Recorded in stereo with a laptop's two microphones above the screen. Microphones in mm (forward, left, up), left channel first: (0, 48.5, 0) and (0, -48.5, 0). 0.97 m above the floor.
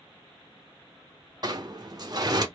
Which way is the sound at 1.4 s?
40° right (ahead or behind).